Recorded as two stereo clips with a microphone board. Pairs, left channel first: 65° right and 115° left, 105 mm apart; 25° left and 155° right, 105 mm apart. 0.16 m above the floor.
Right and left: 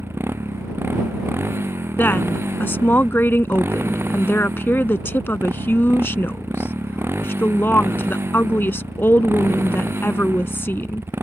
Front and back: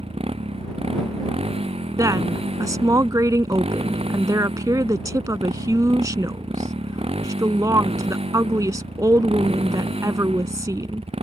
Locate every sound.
0.0 s a motorcycle: straight behind
2.0 s a woman speaking: 125° right